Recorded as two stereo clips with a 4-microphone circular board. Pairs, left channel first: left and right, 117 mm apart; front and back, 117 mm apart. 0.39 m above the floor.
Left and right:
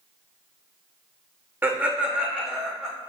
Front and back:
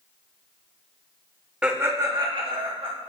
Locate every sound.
1.6 s laughter: 115° right, 0.8 m; by 2.9 s straight behind, 1.6 m